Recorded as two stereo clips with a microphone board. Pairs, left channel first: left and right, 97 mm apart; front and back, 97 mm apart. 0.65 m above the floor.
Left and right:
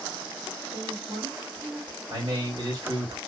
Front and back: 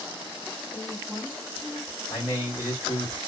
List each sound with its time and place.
0.7 s a woman speaking: 60° right, 2.5 m
2.1 s a man speaking: 60° right, 2.5 m